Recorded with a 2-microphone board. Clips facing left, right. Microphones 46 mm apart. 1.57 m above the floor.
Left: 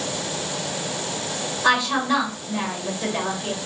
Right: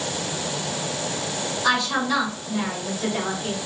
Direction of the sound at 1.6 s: 25° left (ahead or behind).